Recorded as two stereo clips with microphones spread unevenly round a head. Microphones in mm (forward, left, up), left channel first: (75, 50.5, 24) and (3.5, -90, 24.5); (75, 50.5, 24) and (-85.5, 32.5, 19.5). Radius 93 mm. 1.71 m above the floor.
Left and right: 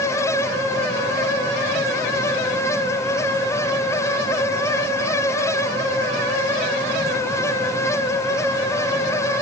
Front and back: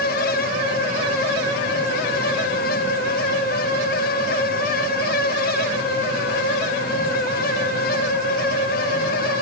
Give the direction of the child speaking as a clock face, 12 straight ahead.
No child speaking in this recording.